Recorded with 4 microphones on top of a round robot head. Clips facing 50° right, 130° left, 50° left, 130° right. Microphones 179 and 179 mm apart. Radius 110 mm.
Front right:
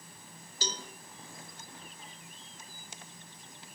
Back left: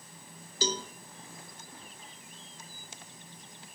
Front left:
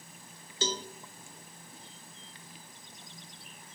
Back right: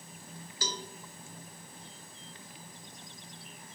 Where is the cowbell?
115° left, 0.6 m.